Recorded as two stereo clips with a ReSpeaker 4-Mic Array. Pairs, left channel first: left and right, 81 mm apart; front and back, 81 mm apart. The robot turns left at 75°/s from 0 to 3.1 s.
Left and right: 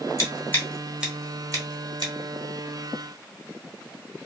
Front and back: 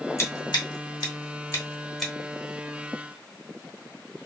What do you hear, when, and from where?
0.2 s scissors: 50° left, 1.0 m; by 2.1 s 95° right, 1.0 m